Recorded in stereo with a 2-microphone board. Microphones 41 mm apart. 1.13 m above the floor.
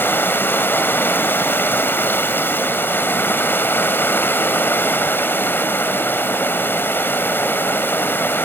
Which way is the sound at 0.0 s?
60° left (ahead or behind).